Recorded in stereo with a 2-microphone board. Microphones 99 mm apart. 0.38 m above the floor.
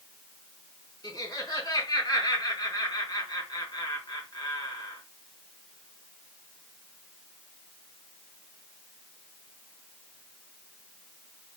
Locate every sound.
1.0 s laughter: 45° left (ahead or behind), 4 m